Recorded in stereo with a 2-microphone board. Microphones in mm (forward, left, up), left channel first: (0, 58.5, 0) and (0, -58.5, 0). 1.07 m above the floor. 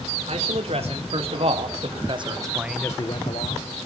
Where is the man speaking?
65° right (ahead or behind), 4 m; by 3.9 s 70° left (ahead or behind), 1.7 m.